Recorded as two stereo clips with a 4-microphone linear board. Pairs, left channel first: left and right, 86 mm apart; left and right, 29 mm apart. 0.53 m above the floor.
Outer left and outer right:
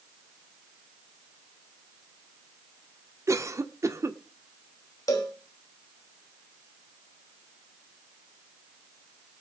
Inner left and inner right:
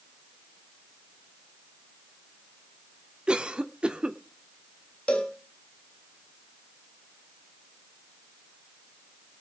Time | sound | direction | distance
3.3 | a cough | 35° right (ahead or behind) | 1.0 m
5.1 | a cowbell | 45° left (ahead or behind) | 3 m